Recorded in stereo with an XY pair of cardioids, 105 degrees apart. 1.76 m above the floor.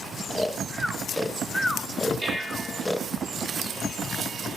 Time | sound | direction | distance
0.3 | snoring | straight ahead | 1.3 m
2.2 | dishes clattering | 15° right | 5 m